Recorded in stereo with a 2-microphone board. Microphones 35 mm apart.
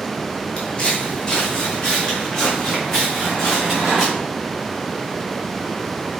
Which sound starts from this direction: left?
Footsteps, at 0.6 s.